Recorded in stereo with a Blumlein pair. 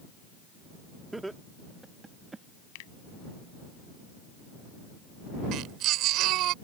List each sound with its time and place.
1.1 s laughter: 5° right; by 2.5 s 15° right
2.8 s a finger snap: 45° left
5.5 s a baby crying: 35° right